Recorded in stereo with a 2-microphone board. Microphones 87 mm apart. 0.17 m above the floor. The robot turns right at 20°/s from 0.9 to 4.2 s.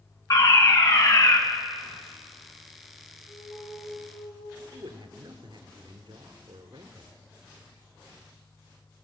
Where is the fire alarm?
45° left (ahead or behind), 2.5 m; by 1.4 s 40° left (ahead or behind), 2.5 m.